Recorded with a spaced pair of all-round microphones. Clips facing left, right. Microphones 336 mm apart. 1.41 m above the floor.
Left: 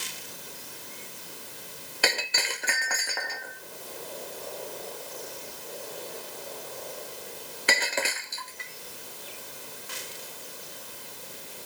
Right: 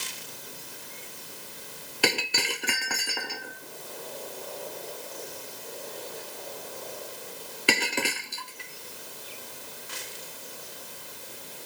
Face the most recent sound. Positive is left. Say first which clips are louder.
# right 3 dB
turn(degrees=-40)  # may be behind; listen again after turning